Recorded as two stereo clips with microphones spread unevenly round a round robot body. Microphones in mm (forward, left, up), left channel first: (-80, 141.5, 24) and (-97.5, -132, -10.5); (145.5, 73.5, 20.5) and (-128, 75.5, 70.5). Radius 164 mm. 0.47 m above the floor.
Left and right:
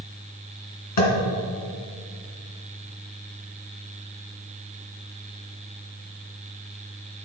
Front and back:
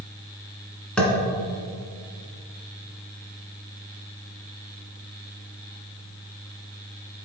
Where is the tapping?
85° left, 1.9 m.